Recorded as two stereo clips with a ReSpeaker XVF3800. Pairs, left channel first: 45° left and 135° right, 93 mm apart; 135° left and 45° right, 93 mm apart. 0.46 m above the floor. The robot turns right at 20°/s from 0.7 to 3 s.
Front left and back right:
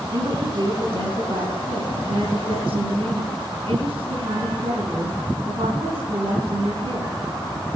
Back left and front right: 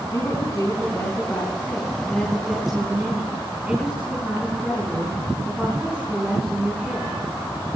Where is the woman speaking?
175° right, 4 m; by 7.2 s 125° right, 4 m.